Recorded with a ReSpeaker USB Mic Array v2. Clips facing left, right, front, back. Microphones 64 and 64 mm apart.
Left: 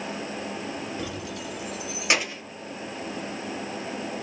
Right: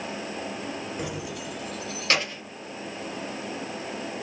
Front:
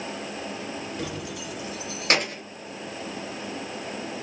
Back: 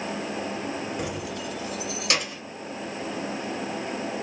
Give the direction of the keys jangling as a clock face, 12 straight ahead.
5 o'clock.